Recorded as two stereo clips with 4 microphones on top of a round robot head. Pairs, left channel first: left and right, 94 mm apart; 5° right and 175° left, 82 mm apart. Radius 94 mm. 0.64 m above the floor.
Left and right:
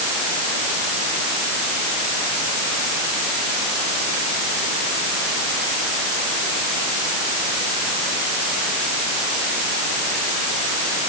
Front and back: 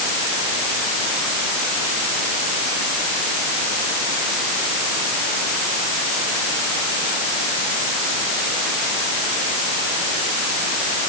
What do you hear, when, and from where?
Only background noise.